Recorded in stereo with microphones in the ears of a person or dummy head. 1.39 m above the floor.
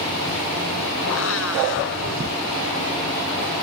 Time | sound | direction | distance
1.0 | a blender | 85° left | ?